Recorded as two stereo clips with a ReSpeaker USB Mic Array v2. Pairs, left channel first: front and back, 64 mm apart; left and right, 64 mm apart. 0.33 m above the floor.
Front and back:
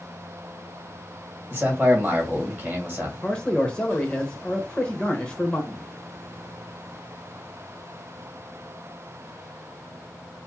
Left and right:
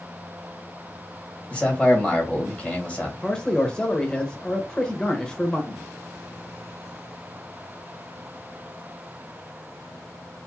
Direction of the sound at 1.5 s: 140° left.